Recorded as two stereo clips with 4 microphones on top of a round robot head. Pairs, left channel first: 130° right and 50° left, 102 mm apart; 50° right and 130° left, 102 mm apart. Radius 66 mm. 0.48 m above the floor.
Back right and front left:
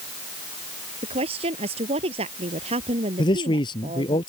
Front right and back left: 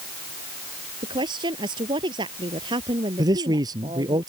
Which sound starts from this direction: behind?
A man speaking, at 3.2 s.